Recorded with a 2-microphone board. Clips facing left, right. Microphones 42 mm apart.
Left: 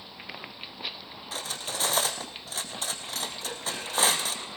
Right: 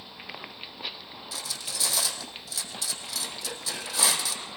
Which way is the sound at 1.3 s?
45° left (ahead or behind).